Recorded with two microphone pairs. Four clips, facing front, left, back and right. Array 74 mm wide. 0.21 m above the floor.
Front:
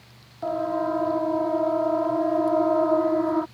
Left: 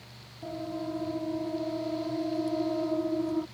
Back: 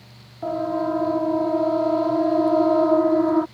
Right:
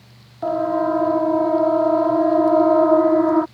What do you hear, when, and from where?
0.4 s a siren: 85° right; by 3.5 s 95° right